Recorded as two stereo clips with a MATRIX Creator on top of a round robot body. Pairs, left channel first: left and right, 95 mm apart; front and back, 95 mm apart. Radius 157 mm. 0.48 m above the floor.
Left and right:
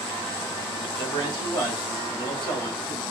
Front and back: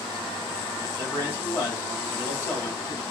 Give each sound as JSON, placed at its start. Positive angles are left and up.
{"t": 0.8, "sound": "a man speaking", "azimuth_deg": 60, "distance_m": 2.5}